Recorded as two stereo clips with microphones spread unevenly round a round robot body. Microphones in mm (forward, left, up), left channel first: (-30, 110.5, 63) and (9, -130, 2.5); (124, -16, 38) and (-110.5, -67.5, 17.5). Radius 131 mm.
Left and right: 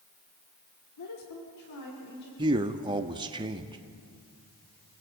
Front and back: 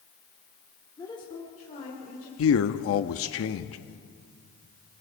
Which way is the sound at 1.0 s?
90° left.